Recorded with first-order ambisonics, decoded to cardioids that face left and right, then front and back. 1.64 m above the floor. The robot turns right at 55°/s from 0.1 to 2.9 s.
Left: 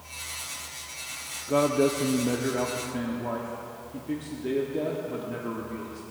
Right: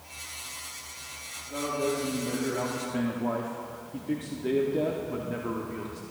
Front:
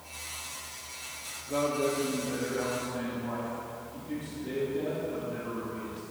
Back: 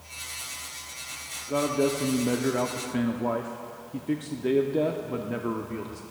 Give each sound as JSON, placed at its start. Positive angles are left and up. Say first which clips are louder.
{"t": 1.5, "sound": "a man speaking", "louder": "left 7 dB, back 3 dB", "azimuth_deg": 110, "distance_m": 0.7}